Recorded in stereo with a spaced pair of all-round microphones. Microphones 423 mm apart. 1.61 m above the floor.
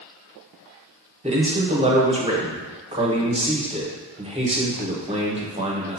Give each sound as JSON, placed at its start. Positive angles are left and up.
{"t": 1.2, "sound": "a man speaking", "side_deg": -15, "distance_m": 0.8}